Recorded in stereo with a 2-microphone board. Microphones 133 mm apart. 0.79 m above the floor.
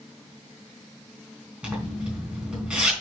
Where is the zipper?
5° right (ahead or behind), 3.5 m.